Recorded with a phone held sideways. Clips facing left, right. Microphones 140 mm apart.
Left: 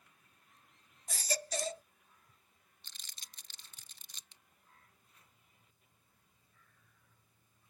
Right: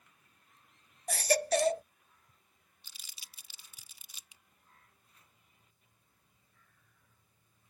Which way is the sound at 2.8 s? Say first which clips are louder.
Even; 10° right (ahead or behind).